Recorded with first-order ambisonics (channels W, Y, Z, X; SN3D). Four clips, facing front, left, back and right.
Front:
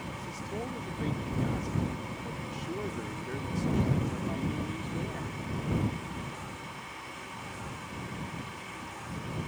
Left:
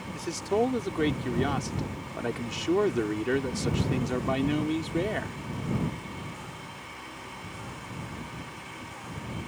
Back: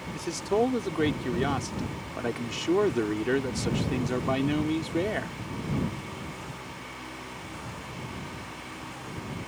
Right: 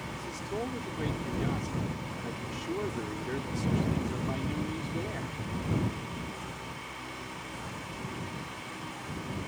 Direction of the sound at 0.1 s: 140° left.